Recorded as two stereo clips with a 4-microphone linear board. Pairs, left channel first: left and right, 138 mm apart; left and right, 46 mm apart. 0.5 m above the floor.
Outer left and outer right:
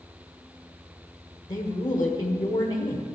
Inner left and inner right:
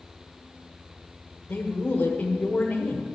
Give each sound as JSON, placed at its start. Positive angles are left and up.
{"t": 1.5, "sound": "a man speaking", "side_deg": 35, "distance_m": 1.3}